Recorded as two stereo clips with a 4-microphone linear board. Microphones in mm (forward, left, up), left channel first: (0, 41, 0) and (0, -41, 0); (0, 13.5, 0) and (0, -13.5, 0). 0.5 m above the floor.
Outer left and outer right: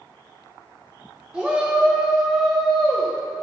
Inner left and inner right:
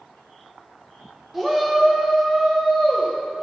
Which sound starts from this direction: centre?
A shout, at 1.3 s.